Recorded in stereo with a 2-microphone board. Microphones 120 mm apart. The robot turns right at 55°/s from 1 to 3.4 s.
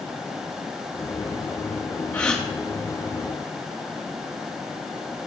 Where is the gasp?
15° left (ahead or behind), 3 m; by 2.4 s centre (ahead or behind), 3 m.